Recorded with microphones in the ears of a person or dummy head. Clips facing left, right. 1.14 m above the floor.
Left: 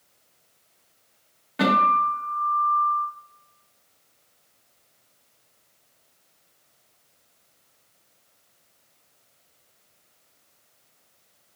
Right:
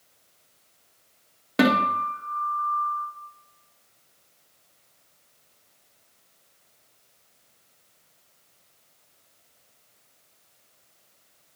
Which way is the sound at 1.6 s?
70° right (ahead or behind).